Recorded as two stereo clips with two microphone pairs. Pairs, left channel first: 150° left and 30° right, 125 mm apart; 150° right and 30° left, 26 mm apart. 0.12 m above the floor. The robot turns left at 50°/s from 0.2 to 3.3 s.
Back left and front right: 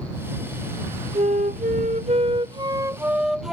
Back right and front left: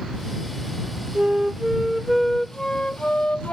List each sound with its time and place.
1.1 s a flute: 10° right; by 3.5 s 120° right